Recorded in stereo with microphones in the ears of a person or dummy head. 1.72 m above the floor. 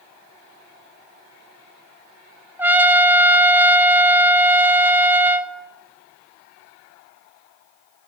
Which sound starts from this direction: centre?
A trumpet, at 2.6 s.